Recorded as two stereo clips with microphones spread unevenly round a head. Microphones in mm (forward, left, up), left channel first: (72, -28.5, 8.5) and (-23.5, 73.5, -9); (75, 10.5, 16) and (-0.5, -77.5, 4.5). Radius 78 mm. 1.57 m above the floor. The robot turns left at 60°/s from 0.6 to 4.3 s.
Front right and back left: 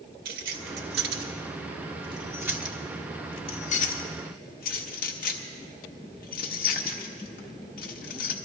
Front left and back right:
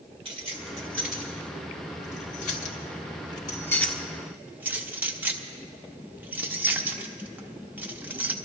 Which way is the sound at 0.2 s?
170° left.